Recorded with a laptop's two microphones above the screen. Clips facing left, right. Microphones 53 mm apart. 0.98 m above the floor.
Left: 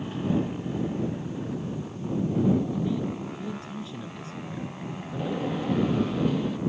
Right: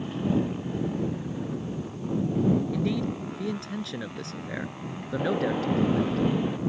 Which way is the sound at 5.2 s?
20° right (ahead or behind).